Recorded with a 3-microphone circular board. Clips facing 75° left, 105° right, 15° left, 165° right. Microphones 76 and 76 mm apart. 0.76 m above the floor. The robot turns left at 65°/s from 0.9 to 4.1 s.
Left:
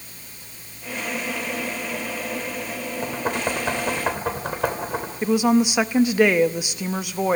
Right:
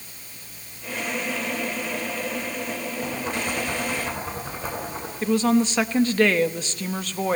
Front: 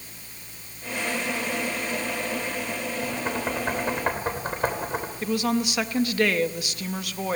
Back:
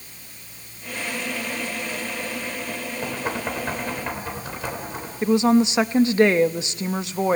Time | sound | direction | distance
3.0 | knocking | 130° left | 3 m
5.2 | a woman speaking | 145° left | 0.8 m